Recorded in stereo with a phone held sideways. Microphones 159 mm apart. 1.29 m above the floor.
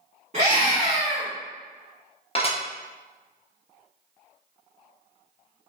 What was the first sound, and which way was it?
A scream, 45° right (ahead or behind).